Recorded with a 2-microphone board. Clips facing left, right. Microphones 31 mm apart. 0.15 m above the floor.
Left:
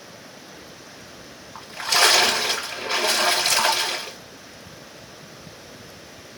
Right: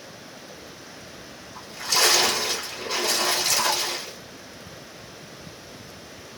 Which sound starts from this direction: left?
A splash, at 1.6 s.